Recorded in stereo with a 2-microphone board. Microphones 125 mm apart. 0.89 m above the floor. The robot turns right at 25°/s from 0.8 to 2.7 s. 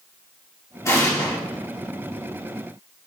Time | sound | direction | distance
0.8 | an explosion | 25° left (ahead or behind) | 1.5 m